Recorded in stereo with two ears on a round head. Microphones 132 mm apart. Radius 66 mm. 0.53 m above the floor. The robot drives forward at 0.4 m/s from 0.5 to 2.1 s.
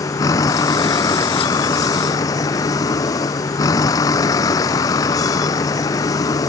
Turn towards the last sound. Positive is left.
turn(degrees=25)  # may be behind; listen again after turning